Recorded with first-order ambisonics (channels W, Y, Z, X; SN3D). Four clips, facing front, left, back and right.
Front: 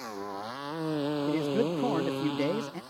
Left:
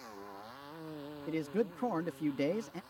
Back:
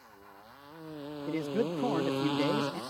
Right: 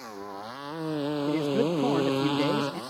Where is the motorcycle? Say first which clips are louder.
Right 9 dB, front 16 dB; 30° right; by 2.9 s 120° right.